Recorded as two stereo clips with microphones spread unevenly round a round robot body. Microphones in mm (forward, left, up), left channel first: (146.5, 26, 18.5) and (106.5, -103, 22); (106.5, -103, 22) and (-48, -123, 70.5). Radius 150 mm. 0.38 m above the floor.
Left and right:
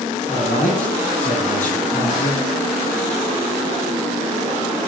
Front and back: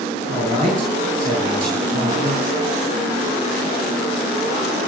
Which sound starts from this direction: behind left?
A man speaking, at 0.3 s.